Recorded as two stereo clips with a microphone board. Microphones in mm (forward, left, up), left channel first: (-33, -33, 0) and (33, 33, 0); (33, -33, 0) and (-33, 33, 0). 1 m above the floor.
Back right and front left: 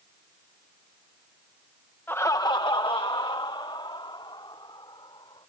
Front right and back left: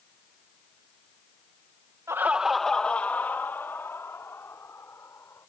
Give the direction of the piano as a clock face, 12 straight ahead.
I don't hear a piano.